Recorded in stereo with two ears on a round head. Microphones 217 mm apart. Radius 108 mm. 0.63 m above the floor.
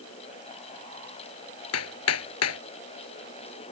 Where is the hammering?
70° left (ahead or behind).